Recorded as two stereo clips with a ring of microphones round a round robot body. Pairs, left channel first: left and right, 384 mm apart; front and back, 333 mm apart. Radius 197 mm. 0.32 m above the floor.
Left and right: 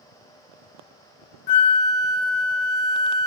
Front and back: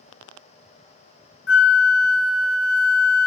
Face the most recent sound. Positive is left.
turn(degrees=55)